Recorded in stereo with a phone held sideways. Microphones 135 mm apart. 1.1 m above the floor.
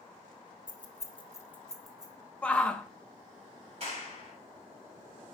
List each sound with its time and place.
0.7 s keys jangling: 70° left (ahead or behind), 0.8 m; by 2.1 s 5° right (ahead or behind), 1.5 m
2.4 s a shout: 10° left (ahead or behind), 0.8 m
3.8 s a clap: 50° right (ahead or behind), 4.5 m